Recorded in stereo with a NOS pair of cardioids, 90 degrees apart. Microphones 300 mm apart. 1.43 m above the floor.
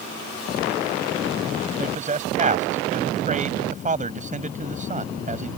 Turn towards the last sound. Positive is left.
turn(degrees=-25)